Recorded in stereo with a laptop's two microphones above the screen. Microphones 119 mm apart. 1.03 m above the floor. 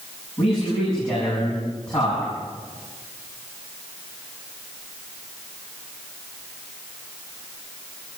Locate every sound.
0.4 s a man speaking: 5° left (ahead or behind), 8.5 m